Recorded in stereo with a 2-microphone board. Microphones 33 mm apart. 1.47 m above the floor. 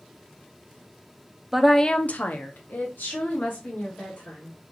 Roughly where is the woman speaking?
Centre.